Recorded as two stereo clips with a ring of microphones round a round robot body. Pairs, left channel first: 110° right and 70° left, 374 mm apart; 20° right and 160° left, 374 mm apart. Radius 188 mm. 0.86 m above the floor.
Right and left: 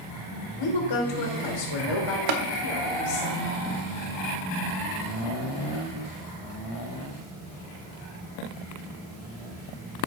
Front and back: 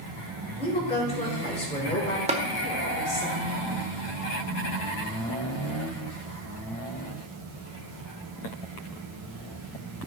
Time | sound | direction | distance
0.6 | a woman speaking | 95° right | 3.5 m
2.3 | tapping | 85° left | 1.4 m